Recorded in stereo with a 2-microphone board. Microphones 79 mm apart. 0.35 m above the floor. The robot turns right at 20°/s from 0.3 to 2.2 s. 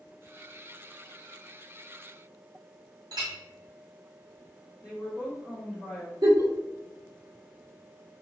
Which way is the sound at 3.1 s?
65° right (ahead or behind).